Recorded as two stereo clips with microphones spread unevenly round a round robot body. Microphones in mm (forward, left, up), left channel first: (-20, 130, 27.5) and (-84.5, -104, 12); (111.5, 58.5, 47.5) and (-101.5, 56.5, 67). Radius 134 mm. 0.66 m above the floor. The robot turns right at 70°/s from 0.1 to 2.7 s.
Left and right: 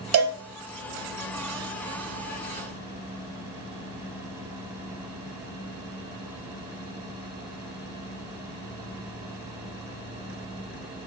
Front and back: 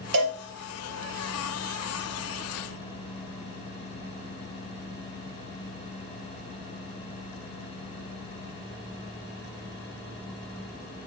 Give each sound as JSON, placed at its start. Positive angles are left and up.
{"t": 0.1, "sound": "a cowbell", "azimuth_deg": -130, "distance_m": 2.0}